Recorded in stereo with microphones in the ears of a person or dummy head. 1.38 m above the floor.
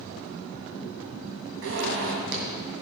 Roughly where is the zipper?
Right.